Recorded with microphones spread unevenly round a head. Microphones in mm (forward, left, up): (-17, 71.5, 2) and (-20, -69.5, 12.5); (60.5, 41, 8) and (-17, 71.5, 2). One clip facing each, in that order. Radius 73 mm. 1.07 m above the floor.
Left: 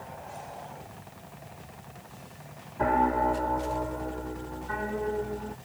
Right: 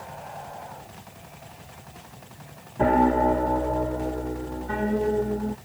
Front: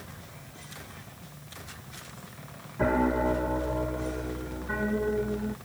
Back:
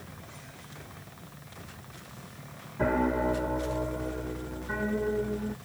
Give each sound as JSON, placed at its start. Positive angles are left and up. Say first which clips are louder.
{"t": 2.8, "sound": "a piano", "louder": "right 5 dB, front 1 dB", "azimuth_deg": -100}